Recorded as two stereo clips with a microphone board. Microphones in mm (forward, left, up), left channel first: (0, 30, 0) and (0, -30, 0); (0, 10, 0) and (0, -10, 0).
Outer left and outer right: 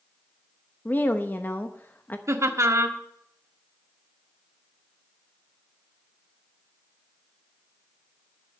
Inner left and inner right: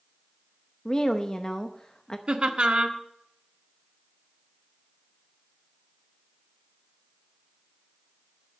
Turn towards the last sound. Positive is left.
turn(degrees=-50)  # may be behind; listen again after turning